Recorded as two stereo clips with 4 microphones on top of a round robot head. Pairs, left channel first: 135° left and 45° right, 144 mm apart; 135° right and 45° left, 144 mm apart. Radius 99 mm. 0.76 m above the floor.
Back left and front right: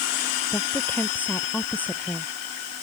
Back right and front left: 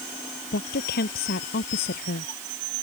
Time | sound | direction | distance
0.5 | a woman speaking | 150° right | ?